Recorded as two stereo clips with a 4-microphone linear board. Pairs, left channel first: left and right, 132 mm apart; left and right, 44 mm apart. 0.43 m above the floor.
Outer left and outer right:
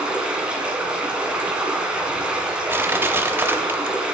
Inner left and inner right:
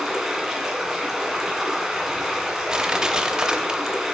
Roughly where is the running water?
Centre.